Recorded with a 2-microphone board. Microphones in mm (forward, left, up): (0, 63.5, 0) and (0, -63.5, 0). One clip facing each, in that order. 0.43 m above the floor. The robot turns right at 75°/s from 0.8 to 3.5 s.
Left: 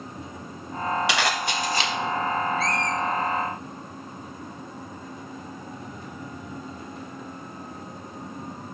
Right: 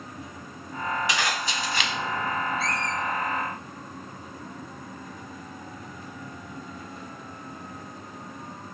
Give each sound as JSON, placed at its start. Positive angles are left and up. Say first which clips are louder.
{"t": 1.1, "sound": "a zipper", "louder": "left 3 dB", "side_deg": 75, "distance_m": 0.5}
{"t": 2.6, "sound": "a squeak", "louder": "left 3 dB", "side_deg": -30, "distance_m": 2.0}